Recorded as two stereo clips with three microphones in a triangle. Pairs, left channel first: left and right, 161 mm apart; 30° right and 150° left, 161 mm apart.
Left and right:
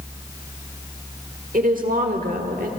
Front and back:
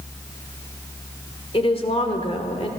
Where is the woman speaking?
80° right, 1.5 m.